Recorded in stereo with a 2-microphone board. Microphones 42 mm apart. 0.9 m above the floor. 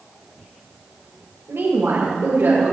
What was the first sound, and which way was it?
A woman speaking, 80° right.